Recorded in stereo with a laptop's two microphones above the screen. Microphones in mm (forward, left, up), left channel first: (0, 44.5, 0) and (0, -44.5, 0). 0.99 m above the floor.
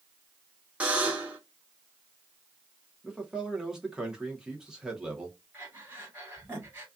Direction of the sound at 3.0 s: 5° right (ahead or behind).